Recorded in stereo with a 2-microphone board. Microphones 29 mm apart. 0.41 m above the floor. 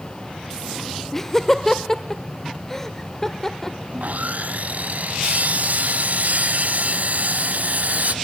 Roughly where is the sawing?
Right.